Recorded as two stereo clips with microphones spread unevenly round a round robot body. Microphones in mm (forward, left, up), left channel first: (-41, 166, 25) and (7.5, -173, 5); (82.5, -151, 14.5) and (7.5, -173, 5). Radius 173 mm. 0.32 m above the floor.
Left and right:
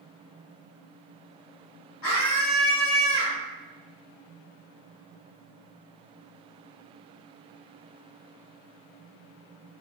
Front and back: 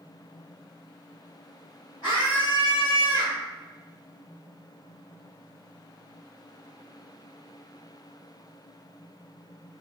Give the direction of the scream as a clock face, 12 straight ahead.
10 o'clock.